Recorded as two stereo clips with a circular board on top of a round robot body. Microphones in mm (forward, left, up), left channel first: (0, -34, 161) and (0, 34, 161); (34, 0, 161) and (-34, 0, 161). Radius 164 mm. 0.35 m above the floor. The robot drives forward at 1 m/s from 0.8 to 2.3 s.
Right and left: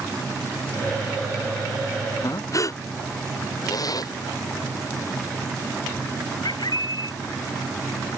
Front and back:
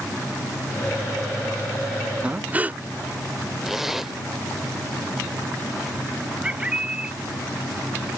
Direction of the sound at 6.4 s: 105° right.